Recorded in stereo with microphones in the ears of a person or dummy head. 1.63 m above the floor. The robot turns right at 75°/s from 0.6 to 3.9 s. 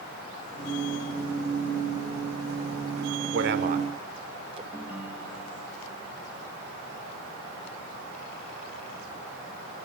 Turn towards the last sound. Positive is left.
turn(degrees=-5)  # may be behind; listen again after turning